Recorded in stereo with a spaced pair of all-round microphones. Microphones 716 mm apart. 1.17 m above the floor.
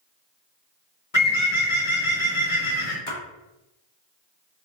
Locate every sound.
1.1 s a bird: 45° left (ahead or behind), 1.1 m
3.1 s a splash: 45° left (ahead or behind), 1.4 m